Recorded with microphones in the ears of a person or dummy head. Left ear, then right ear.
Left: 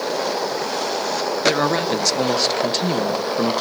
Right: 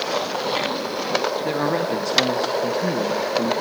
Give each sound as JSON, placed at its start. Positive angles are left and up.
{"t": 1.4, "sound": "a man speaking", "side_deg": 25, "distance_m": 1.8}